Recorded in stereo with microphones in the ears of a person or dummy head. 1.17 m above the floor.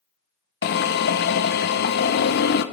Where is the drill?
40° left (ahead or behind), 0.6 m.